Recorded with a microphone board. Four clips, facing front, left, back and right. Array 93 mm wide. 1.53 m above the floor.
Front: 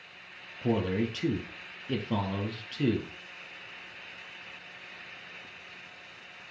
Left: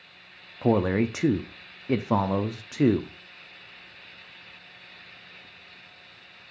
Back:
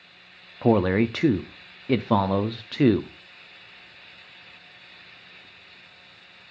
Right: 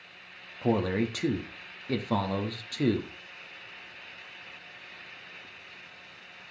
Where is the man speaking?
155° left, 0.6 m.